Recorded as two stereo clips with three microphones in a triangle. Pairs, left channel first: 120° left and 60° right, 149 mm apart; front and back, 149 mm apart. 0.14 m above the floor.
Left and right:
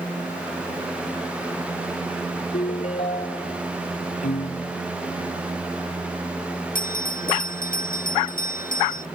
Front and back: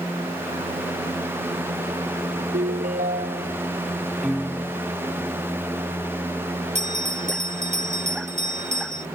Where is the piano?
90° left.